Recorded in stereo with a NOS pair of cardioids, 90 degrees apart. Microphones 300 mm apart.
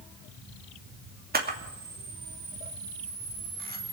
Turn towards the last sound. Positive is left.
turn(degrees=-30)